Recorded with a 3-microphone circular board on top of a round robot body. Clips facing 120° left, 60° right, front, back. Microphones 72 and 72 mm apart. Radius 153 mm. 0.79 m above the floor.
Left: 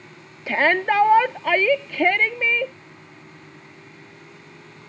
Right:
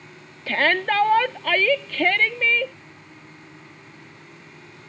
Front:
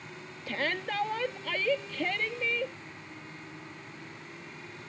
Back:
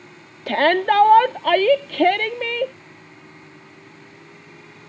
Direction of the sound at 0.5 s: 165° right.